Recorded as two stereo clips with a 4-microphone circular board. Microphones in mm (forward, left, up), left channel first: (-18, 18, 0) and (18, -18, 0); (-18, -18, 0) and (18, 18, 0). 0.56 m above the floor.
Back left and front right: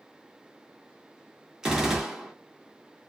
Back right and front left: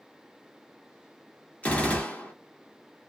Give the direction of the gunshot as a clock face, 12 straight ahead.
4 o'clock.